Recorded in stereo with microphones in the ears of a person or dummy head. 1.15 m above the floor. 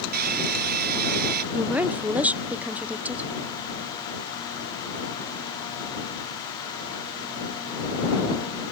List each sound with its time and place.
0.1 s a hair dryer: 55° right (ahead or behind)
1.5 s a woman speaking: 10° right (ahead or behind)